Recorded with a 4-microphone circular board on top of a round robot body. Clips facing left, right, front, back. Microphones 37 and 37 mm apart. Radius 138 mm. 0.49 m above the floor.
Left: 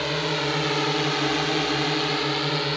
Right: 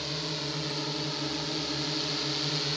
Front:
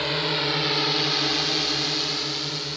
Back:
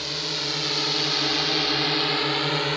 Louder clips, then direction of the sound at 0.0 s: Left 10 dB, front 5 dB; 55° left.